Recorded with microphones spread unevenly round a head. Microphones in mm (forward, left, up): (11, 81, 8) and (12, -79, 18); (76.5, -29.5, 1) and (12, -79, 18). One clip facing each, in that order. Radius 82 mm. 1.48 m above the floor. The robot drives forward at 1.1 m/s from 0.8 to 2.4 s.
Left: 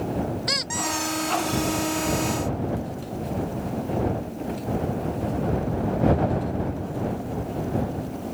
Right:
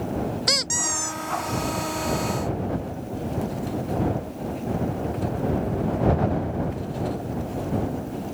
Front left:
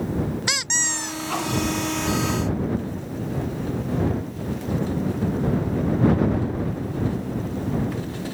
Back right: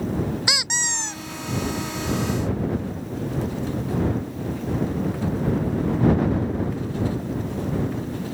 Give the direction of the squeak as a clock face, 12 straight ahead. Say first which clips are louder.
Left 1 dB, even; 2 o'clock.